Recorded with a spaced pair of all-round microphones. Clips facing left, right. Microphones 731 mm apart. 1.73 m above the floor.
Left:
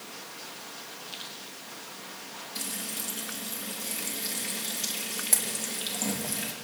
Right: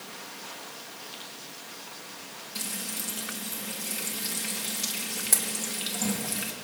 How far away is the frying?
About 1.8 m.